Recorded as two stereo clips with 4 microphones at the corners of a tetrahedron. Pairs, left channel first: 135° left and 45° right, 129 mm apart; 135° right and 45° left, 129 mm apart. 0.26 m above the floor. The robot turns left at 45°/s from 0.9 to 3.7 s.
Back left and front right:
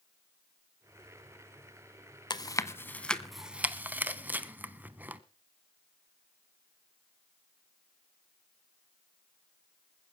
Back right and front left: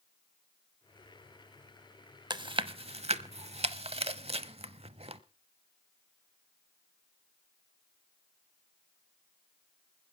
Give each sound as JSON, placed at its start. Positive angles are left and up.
{"t": 2.3, "sound": "chewing", "azimuth_deg": 90, "distance_m": 0.7}